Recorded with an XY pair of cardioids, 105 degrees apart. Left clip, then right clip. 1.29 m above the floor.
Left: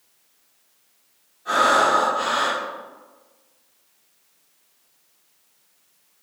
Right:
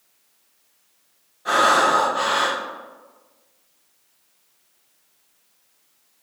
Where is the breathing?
65° right, 0.6 m.